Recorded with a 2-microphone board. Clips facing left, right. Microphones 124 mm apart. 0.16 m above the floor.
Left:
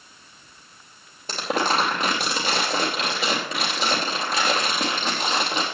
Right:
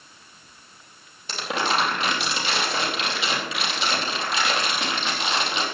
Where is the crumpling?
40° left (ahead or behind), 4 m.